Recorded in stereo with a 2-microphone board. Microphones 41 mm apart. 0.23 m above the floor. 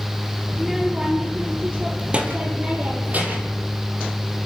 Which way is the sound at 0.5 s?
5° right (ahead or behind).